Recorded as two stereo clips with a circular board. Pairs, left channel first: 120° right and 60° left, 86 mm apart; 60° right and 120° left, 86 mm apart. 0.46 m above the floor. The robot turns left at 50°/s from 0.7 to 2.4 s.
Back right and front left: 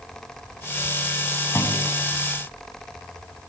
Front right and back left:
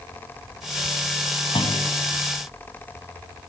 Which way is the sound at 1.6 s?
65° right.